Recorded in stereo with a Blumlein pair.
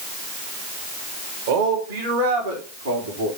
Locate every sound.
1.5 s a man speaking: 60° right, 2.5 m; by 3.3 s 80° right, 3 m